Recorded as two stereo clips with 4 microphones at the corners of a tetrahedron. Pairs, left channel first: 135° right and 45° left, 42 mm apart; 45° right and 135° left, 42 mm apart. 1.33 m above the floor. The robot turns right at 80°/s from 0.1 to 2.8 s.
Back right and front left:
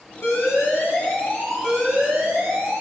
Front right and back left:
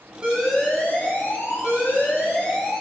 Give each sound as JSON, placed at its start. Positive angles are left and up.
{"t": 0.2, "sound": "an alarm", "azimuth_deg": -150, "distance_m": 1.1}